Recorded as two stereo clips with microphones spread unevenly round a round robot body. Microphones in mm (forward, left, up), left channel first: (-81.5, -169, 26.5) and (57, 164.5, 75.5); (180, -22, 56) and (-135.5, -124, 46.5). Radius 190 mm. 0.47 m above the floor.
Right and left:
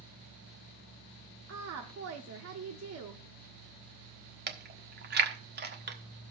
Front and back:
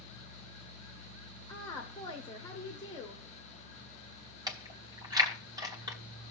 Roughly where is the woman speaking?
Left.